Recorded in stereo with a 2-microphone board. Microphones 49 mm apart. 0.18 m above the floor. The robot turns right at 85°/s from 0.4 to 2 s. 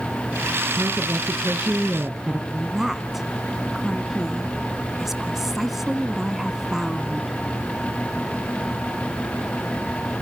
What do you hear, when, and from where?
0.8 s a woman speaking: 110° right, 3 m; by 2.4 s 5° right, 3 m
2.5 s a woman speaking: 5° right (ahead or behind), 1.4 m